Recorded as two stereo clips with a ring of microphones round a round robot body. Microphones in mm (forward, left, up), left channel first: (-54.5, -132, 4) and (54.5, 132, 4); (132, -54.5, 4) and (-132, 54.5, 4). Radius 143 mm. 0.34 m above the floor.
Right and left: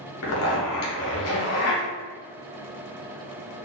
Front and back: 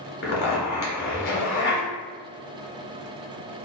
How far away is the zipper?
About 1.3 m.